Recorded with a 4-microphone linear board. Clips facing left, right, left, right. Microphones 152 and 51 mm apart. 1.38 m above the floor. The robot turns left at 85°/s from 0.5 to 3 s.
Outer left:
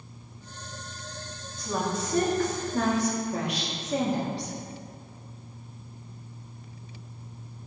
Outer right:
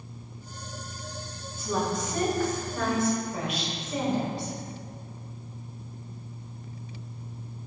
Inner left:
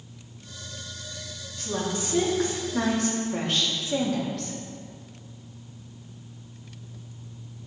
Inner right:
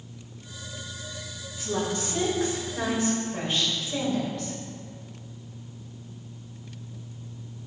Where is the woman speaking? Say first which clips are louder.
Outer right 1 dB, inner right 1 dB; 170° right, 2.5 m; by 4.5 s 65° left, 2.5 m.